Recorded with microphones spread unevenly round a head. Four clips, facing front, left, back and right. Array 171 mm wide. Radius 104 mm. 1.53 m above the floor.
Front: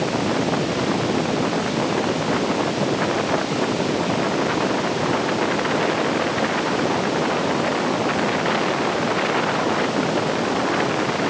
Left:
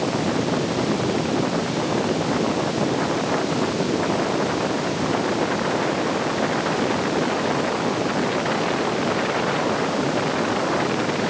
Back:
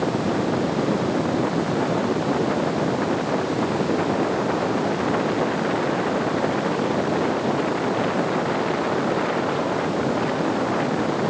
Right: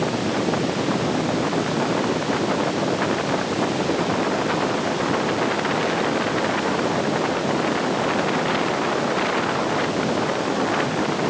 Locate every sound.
Only background noise.